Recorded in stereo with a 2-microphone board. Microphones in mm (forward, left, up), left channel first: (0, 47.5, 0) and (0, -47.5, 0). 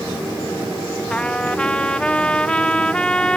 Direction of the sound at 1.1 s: 10° left (ahead or behind).